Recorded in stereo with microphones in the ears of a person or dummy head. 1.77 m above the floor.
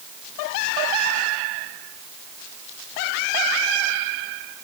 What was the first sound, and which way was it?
Only background noise.